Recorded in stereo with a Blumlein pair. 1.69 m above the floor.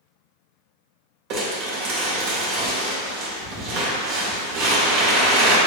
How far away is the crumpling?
About 1.4 m.